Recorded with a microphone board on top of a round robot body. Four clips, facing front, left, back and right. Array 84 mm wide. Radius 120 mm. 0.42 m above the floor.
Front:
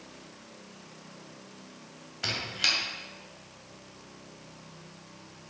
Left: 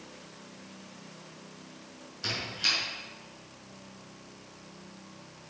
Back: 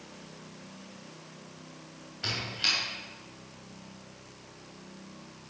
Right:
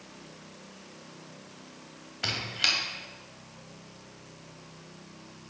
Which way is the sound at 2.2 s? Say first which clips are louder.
Right 2 dB, front 2 dB; 70° right.